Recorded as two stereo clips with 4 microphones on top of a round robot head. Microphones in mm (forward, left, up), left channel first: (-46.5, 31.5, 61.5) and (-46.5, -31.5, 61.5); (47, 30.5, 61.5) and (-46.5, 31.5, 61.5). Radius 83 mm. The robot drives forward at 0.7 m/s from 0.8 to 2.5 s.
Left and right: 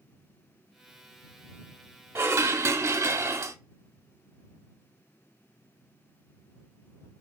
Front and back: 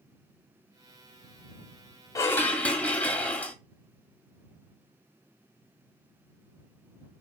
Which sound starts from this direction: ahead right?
Dishes clattering, at 2.1 s.